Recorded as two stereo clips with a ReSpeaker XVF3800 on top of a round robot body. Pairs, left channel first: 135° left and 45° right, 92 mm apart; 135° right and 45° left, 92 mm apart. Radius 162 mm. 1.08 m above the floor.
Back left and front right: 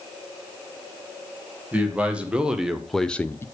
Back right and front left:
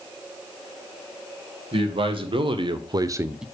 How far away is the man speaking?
About 2.0 m.